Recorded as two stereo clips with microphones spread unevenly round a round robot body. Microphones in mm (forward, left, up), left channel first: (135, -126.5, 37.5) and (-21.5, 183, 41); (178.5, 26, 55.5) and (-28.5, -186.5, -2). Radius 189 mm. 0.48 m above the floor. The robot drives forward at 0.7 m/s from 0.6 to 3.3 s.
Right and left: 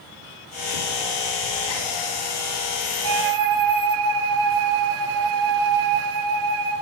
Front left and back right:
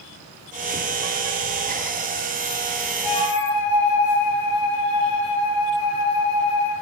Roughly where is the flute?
Left.